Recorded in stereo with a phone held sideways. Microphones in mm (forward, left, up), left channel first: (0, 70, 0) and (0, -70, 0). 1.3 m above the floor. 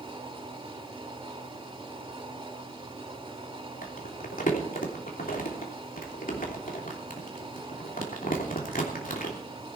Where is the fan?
35° right (ahead or behind), 4 m.